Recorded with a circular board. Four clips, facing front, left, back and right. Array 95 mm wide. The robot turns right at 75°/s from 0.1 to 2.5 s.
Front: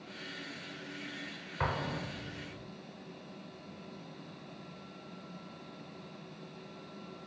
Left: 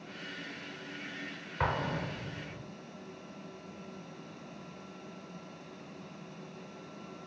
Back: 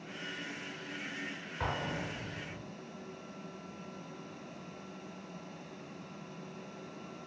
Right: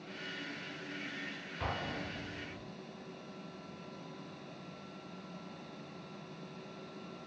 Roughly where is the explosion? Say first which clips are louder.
Left 7 dB, front 1 dB; ahead left.